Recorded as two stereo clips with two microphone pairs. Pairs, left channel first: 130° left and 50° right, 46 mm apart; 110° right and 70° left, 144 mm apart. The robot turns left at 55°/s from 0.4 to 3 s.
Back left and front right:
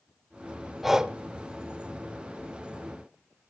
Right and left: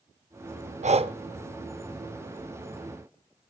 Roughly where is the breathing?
Ahead left.